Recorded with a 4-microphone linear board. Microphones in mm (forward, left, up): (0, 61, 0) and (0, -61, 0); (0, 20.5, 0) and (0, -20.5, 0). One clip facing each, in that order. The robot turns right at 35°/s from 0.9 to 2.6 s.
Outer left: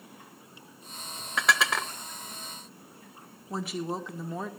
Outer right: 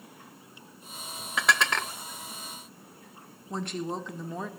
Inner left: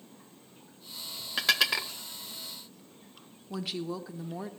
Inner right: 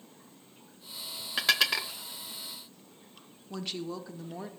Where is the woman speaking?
5° left (ahead or behind), 0.8 m.